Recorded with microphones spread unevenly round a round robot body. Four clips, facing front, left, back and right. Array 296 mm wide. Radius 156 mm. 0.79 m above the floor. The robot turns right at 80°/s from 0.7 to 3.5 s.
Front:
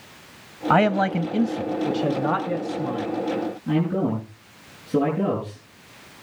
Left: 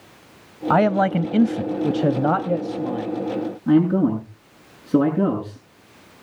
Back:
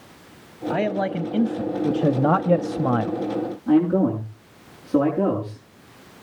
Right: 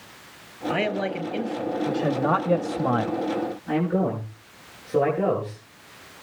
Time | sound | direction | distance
0.7 | a man speaking | 30° left | 0.8 m
3.7 | a man speaking | 90° left | 7 m